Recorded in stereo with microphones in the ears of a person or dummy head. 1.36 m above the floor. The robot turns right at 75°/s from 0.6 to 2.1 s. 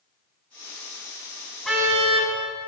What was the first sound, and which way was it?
A car horn, straight behind.